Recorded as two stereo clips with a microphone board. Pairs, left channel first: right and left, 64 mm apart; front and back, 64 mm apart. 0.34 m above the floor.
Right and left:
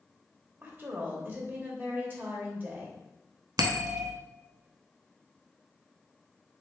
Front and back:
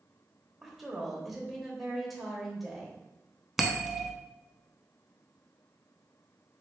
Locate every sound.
0.6 s a woman speaking: 95° left, 1.0 m
3.6 s a bell: 95° left, 0.5 m